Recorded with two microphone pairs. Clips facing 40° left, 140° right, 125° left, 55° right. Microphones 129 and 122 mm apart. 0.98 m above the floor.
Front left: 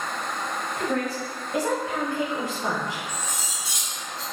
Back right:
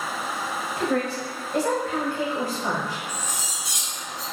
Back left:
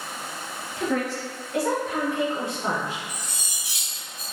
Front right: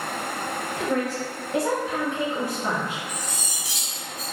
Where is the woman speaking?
45° right, 1.1 m; by 3.0 s 100° left, 1.1 m.